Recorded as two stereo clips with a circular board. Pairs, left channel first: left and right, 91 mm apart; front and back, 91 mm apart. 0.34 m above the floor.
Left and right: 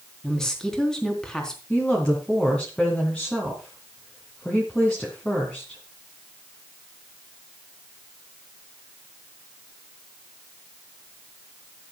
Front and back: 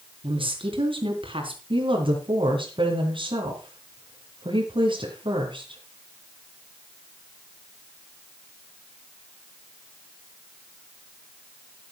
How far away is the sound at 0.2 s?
About 3.5 m.